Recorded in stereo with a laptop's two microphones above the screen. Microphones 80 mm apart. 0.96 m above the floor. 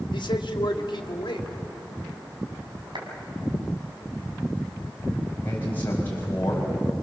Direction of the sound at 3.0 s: 75° right (ahead or behind).